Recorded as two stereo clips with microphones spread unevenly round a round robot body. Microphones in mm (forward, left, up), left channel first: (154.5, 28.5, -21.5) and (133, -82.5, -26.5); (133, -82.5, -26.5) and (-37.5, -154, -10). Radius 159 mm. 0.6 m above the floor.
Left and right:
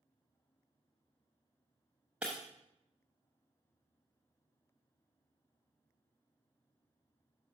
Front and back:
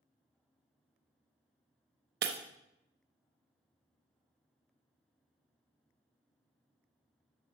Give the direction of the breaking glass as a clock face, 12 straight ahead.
6 o'clock.